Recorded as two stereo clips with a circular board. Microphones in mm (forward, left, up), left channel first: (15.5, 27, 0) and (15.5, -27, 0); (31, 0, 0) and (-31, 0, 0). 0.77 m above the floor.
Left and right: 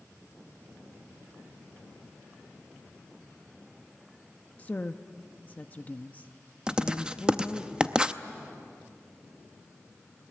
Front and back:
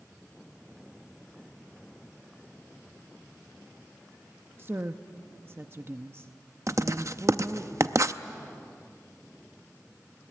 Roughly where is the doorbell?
I don't hear a doorbell.